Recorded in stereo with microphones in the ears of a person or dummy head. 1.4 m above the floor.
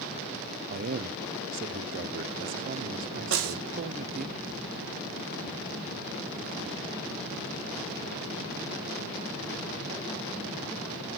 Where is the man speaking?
45° right (ahead or behind), 0.7 m.